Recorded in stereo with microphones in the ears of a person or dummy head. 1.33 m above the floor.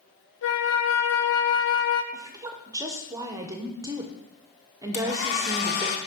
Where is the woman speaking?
15° right (ahead or behind), 1.1 m.